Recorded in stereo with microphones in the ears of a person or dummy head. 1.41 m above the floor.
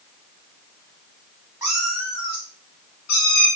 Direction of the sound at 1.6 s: 10° right (ahead or behind).